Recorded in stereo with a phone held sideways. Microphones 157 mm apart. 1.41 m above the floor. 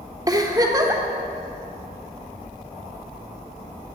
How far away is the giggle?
About 1.1 m.